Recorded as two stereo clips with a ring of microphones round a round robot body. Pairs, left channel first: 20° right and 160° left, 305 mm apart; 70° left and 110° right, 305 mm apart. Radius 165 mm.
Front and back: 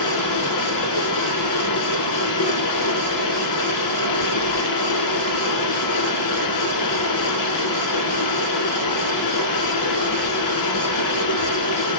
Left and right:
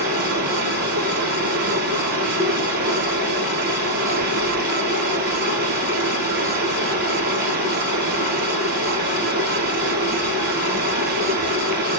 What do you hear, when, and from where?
0.0 s running water: 50° right, 2.5 m